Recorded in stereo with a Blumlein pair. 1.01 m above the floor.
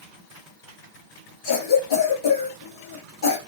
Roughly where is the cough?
Ahead left.